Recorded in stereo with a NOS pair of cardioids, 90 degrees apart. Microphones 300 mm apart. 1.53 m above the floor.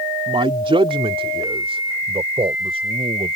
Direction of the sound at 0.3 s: 15° right.